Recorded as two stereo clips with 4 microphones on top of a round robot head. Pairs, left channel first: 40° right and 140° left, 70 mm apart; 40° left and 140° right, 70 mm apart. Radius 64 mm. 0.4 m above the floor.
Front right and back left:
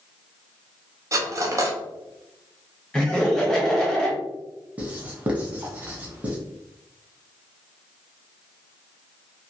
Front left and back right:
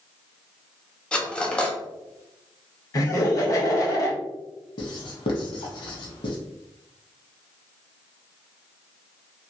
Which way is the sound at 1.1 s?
115° left.